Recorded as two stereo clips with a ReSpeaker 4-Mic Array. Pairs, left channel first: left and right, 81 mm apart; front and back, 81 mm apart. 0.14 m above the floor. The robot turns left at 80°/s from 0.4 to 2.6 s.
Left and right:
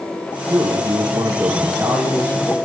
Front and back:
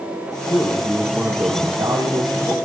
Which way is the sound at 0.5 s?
55° right.